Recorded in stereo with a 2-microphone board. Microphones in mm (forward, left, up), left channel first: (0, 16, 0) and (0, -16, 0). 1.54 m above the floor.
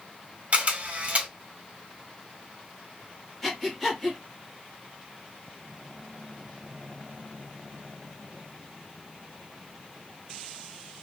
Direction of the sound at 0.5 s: 45° right (ahead or behind).